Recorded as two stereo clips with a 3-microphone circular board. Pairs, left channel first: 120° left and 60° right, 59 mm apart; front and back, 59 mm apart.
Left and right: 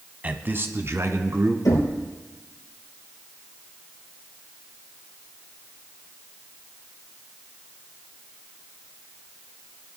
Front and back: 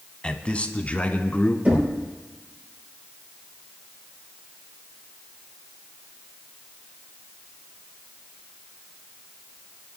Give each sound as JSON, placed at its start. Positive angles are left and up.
{"t": 0.2, "sound": "a man speaking", "azimuth_deg": -50, "distance_m": 1.1}
{"t": 1.6, "sound": "knocking", "azimuth_deg": 115, "distance_m": 3.5}